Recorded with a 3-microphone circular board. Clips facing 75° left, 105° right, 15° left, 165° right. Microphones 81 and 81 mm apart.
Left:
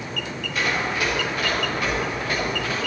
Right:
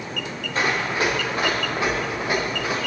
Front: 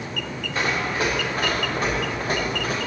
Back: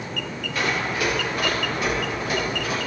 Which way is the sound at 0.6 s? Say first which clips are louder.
Right 2 dB, front 1 dB; 45° right.